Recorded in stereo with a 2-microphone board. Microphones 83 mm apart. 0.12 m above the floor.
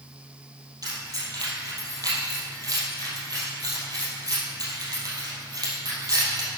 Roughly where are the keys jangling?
Right.